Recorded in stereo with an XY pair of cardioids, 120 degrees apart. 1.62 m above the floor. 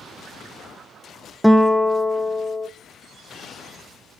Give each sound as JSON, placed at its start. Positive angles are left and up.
{"t": 1.4, "sound": "a guitar", "azimuth_deg": 0, "distance_m": 0.8}